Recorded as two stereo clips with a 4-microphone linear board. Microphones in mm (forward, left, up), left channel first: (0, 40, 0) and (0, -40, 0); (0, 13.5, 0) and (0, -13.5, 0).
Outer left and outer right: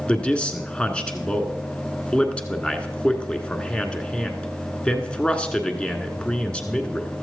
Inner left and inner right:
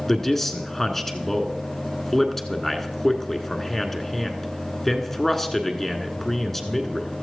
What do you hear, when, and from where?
0.1 s a man speaking: 15° left (ahead or behind), 1.5 m